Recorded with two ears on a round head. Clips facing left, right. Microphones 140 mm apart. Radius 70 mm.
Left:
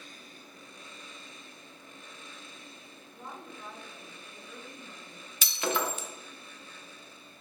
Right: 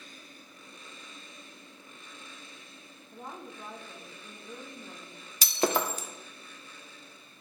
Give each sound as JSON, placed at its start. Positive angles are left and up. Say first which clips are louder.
{"t": 3.1, "sound": "a woman speaking", "louder": "right 2 dB", "side_deg": -20, "distance_m": 1.3}
{"t": 5.4, "sound": "breaking glass", "louder": "right 3 dB", "side_deg": -30, "distance_m": 0.7}